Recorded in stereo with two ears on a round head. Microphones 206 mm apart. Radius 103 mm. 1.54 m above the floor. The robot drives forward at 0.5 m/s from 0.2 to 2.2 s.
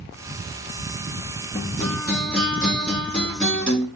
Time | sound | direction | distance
1.5 | a guitar | centre (ahead or behind) | 4 m